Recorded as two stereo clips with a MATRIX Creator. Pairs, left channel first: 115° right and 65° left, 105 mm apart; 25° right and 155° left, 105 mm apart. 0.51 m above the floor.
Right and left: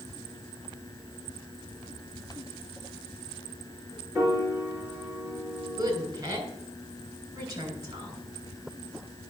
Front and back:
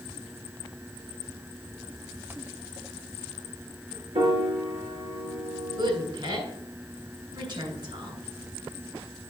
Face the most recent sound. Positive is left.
turn(degrees=120)